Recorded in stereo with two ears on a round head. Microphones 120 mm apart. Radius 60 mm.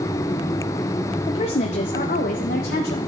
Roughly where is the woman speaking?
Left.